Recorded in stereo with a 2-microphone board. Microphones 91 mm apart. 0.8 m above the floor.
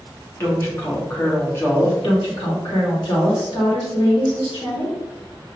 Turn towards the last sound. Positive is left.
turn(degrees=55)  # may be behind; listen again after turning